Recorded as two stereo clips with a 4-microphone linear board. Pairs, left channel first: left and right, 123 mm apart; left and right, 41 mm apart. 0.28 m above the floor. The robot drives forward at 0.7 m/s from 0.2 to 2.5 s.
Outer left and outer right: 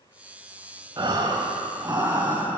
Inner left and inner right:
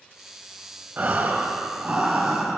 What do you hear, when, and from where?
1.0 s breathing: 40° right (ahead or behind), 0.8 m; by 2.6 s 20° right (ahead or behind), 1.5 m